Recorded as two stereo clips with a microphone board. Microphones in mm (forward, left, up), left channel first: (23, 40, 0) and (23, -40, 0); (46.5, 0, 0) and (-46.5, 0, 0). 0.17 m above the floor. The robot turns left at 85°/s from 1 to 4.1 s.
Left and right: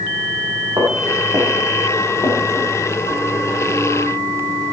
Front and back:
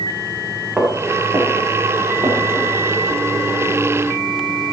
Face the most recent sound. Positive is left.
turn(degrees=-20)